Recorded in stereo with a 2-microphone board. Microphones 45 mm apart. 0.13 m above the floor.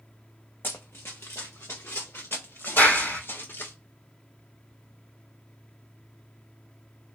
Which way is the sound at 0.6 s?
55° left (ahead or behind).